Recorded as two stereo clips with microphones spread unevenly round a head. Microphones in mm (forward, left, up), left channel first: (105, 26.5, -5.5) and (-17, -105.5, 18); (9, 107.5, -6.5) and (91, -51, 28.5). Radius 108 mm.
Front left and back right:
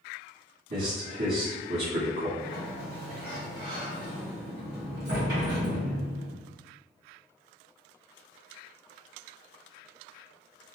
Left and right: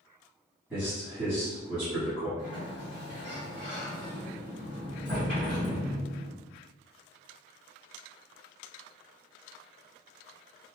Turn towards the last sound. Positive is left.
turn(degrees=-160)